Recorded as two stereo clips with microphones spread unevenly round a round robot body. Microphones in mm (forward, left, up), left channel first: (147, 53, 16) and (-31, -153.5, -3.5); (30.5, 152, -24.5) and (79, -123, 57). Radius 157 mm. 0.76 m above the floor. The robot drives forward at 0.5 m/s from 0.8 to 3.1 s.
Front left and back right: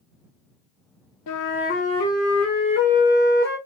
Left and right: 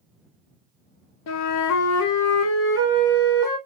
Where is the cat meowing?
I don't hear a cat meowing.